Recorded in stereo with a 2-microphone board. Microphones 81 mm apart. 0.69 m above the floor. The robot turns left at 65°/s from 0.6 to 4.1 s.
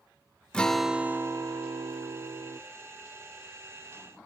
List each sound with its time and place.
0.5 s a guitar: 10° left, 0.6 m; by 2.6 s 120° right, 0.6 m